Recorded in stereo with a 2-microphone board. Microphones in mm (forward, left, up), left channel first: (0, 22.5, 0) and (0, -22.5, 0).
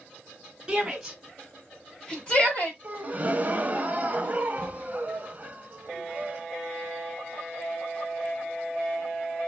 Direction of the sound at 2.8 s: 35° right (ahead or behind).